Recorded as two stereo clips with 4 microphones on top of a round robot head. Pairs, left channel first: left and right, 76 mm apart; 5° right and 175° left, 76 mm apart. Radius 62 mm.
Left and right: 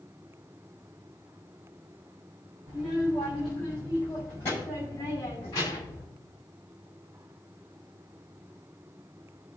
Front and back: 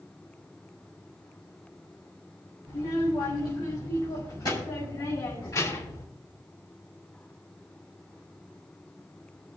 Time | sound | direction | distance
2.7 | a child speaking | 10° right | 2 m